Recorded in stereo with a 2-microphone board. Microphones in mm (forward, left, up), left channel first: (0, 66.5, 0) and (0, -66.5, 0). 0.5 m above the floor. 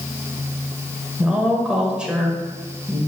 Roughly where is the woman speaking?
Centre.